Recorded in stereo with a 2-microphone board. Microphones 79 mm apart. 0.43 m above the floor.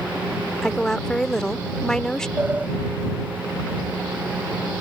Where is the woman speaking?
5° left (ahead or behind).